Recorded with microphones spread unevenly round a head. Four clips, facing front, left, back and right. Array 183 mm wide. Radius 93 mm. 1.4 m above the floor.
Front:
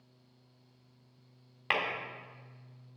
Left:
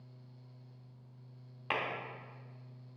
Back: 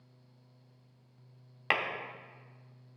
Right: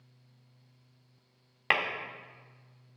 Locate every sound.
1.7 s tapping: 105° right, 1.8 m